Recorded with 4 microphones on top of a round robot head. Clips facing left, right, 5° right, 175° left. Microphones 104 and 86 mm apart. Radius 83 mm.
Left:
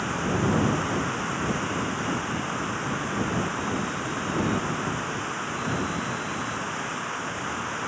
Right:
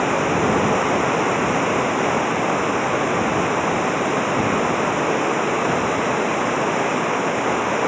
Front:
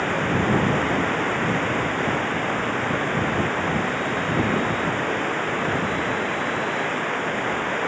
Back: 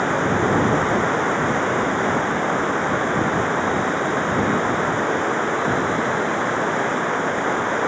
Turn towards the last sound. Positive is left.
turn(degrees=-110)